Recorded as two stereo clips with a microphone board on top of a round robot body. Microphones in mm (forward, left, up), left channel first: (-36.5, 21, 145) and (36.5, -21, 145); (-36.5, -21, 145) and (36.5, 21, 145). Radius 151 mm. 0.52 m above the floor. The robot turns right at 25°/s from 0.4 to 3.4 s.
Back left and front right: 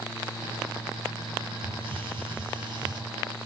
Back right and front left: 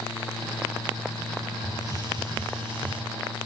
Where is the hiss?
25° right, 3 m; by 3.0 s 10° left, 3 m.